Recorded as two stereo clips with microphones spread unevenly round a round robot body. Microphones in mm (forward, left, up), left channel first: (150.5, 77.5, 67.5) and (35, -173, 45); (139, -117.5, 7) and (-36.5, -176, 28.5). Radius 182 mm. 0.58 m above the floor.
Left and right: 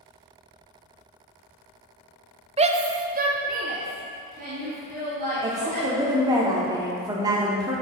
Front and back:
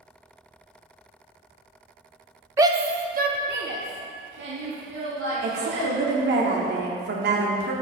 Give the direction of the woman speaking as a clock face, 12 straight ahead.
6 o'clock.